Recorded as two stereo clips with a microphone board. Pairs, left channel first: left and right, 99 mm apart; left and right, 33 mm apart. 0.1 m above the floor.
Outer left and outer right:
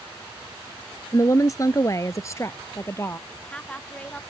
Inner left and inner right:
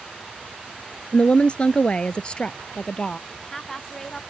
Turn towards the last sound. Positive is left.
turn(degrees=10)  # may be behind; listen again after turning